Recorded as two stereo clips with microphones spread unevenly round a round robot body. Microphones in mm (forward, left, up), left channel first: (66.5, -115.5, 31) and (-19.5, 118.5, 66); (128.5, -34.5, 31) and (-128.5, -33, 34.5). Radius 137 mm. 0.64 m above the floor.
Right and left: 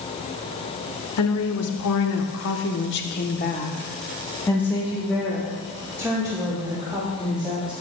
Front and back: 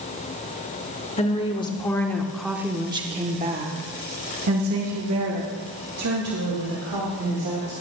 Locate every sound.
1.2 s a woman speaking: 65° right, 1.7 m; by 7.7 s 175° right, 3 m